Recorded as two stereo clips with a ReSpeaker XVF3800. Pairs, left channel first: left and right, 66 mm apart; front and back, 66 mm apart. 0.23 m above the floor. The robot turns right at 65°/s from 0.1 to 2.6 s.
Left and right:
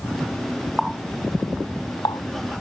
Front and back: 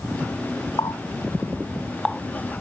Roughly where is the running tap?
Ahead.